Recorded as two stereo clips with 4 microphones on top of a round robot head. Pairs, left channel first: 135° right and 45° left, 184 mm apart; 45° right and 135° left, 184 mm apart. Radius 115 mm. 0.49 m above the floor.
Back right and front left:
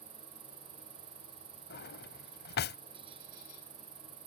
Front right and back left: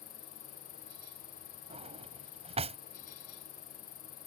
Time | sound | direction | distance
0.0 | an insect | 5° right | ?
1.7 | a drawer | 165° right | ?